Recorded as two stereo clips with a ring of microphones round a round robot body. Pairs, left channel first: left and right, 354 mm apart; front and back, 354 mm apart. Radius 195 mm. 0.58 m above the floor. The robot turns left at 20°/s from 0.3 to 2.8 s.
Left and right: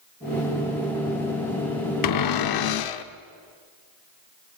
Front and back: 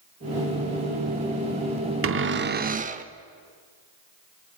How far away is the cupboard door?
About 0.8 m.